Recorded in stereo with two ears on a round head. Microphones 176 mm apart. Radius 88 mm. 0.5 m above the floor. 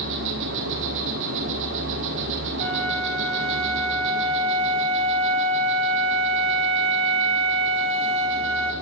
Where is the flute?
35° right (ahead or behind), 1.7 m.